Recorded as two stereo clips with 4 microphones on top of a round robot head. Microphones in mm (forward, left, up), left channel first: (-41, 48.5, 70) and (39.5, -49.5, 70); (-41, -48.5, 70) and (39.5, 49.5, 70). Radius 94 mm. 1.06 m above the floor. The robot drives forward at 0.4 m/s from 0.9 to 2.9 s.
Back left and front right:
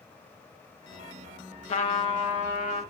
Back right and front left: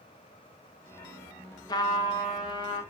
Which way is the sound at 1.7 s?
170° left.